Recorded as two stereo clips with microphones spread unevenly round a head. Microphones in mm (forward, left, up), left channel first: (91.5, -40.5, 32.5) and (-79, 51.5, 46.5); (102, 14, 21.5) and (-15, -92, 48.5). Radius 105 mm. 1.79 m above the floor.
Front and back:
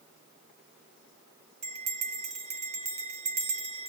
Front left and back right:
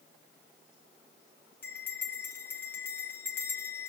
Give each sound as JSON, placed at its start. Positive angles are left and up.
{"t": 1.6, "sound": "a bell", "azimuth_deg": 130, "distance_m": 0.7}